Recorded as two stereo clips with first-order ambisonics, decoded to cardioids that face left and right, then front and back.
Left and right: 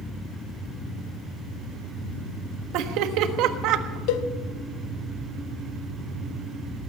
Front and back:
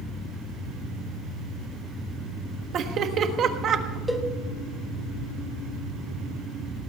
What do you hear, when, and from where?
2.7 s laughter: 125° right, 1.4 m
4.1 s a cowbell: 85° left, 1.0 m